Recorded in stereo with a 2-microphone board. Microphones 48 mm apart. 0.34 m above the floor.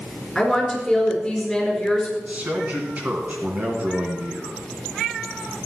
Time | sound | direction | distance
0.3 | a woman speaking | 5° left (ahead or behind) | 4 m
2.2 | a man speaking | 30° right (ahead or behind) | 3 m